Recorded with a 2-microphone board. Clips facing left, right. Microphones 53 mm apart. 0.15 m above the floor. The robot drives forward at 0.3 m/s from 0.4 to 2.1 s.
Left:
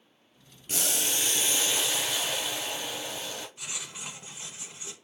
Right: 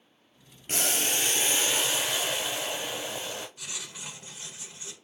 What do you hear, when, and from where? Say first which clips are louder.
0.7 s boiling: right 2 dB; 45° right (ahead or behind), 0.5 m; by 3.5 s 25° right (ahead or behind), 0.9 m
3.6 s writing: left 1 dB; 25° left (ahead or behind), 0.9 m